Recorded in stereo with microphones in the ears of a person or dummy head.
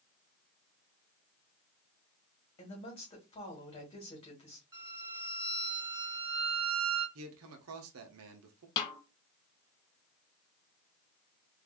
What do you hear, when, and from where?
2.6 s a woman speaking: 35° left (ahead or behind), 1.6 m
4.7 s a violin: 15° right (ahead or behind), 2 m
7.2 s a man speaking: 75° right (ahead or behind), 0.8 m
8.8 s a snare drum: 25° left (ahead or behind), 0.6 m